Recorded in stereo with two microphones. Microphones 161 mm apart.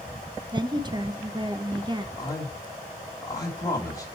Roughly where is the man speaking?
Left.